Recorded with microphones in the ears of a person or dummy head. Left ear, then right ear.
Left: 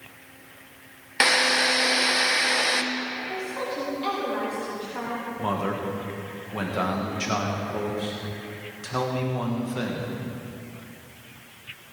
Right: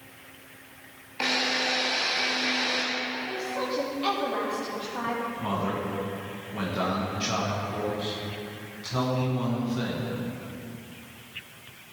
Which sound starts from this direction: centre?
A woman speaking, at 3.3 s.